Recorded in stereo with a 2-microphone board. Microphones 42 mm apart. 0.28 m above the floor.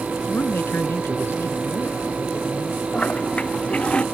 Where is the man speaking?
65° left (ahead or behind); by 2.8 s 70° left (ahead or behind).